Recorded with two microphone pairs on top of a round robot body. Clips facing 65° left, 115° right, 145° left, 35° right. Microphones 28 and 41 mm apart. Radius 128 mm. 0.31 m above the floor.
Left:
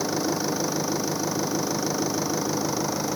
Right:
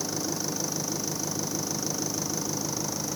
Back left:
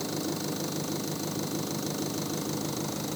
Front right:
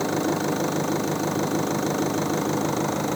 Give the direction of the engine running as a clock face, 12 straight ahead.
12 o'clock.